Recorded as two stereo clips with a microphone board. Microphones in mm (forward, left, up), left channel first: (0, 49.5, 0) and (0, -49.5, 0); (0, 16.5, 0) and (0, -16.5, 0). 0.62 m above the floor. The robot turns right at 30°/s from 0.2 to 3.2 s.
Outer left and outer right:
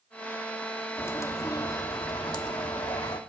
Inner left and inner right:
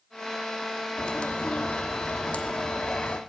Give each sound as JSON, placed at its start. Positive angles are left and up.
{"t": 1.0, "sound": "a bird", "azimuth_deg": 35, "distance_m": 1.1}